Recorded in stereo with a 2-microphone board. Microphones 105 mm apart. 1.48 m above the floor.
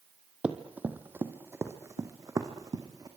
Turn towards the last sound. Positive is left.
turn(degrees=-35)  # may be behind; listen again after turning